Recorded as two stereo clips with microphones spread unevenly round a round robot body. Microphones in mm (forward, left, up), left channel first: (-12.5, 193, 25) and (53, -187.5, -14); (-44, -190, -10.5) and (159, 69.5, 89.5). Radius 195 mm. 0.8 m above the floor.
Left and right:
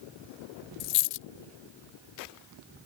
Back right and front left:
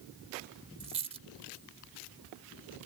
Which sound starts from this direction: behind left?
A dropped coin, at 0.8 s.